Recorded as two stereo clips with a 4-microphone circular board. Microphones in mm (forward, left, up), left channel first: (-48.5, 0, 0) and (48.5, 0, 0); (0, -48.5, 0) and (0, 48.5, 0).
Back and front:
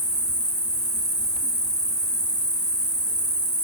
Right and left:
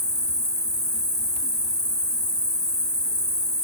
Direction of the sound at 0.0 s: 100° right.